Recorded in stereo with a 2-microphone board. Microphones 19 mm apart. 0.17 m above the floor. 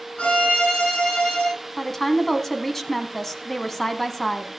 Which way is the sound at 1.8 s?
10° left (ahead or behind).